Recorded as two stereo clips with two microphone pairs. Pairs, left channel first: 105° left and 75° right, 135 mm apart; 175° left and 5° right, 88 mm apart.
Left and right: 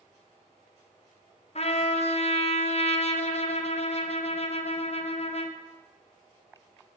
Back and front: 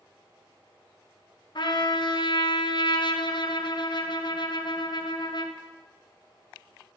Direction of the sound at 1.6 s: 140° left.